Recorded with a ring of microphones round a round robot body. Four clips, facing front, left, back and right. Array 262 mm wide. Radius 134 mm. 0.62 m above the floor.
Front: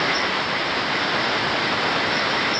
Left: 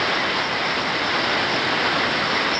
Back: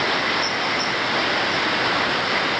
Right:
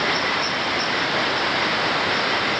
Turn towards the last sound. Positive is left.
No sound to turn to.